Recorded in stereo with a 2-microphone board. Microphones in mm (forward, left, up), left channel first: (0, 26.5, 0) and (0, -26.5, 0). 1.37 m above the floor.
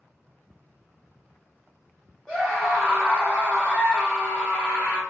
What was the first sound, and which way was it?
A scream, centre (ahead or behind).